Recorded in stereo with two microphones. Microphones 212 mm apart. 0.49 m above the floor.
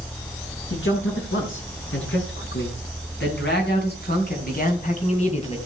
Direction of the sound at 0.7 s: 70° left (ahead or behind).